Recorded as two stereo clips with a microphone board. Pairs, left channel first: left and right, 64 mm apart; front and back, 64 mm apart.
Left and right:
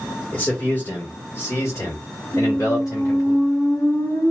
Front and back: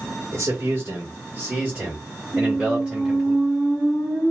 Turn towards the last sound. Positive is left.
turn(degrees=60)